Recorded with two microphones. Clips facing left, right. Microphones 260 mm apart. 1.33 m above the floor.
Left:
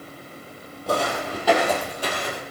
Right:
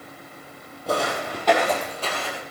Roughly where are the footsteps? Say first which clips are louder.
Left 1 dB; centre.